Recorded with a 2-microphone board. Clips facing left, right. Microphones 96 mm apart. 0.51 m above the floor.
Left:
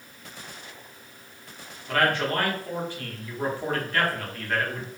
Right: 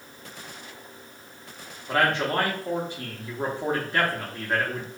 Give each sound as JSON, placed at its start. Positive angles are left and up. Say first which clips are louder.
{"t": 1.9, "sound": "a man speaking", "louder": "even", "side_deg": -20, "distance_m": 0.7}